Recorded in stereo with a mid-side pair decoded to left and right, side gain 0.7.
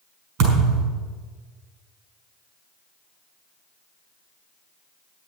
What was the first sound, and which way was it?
A thud, 70° right.